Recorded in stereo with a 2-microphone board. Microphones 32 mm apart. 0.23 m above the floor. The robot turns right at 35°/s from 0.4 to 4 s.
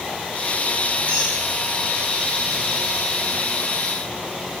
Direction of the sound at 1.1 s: 75° left (ahead or behind).